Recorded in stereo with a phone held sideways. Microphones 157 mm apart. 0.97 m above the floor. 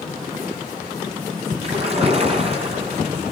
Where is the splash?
40° right (ahead or behind), 7.5 m.